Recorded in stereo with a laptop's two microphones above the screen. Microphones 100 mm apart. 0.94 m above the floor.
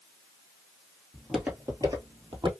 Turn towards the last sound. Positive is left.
turn(degrees=-55)  # may be behind; listen again after turning